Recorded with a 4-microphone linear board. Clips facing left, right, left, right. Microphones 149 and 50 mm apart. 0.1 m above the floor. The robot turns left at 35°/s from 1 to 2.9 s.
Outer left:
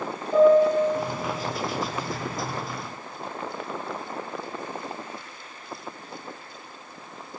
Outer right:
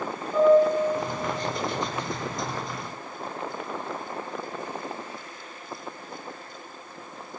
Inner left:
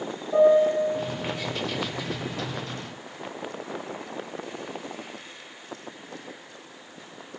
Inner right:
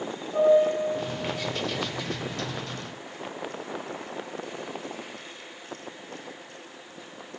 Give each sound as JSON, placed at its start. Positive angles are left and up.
{"t": 0.3, "sound": "a piano", "side_deg": 70, "distance_m": 3.0}